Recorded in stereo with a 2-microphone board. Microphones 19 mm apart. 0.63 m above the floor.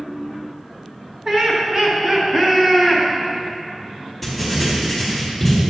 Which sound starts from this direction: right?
Laughter, at 1.2 s.